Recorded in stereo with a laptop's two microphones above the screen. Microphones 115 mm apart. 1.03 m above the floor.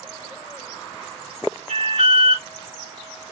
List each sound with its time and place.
1.7 s an alarm: 65° right (ahead or behind), 2.5 m